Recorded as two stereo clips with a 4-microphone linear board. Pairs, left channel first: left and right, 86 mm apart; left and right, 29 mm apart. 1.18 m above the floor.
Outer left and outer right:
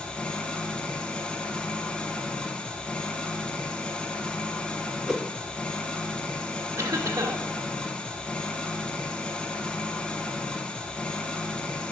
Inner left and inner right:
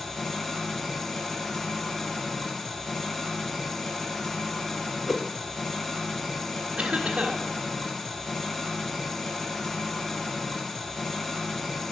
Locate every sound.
0.0 s an engine running: 10° left (ahead or behind), 0.8 m
5.1 s a whoosh: 5° right (ahead or behind), 0.5 m
6.8 s a cough: 35° right (ahead or behind), 1.6 m